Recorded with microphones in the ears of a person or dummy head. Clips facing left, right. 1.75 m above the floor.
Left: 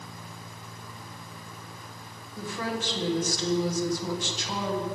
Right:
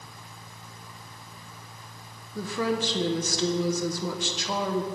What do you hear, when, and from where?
2.4 s a woman speaking: 70° right (ahead or behind), 1.2 m